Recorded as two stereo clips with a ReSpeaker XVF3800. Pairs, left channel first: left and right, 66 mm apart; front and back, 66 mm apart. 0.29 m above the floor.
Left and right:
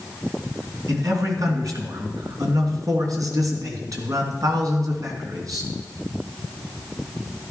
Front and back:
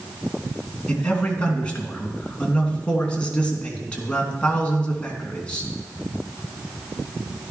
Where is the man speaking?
75° right, 3 m.